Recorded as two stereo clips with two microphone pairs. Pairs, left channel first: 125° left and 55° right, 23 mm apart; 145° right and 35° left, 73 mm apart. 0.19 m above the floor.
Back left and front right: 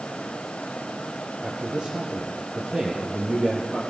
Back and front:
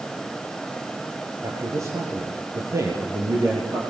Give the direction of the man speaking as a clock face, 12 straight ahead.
12 o'clock.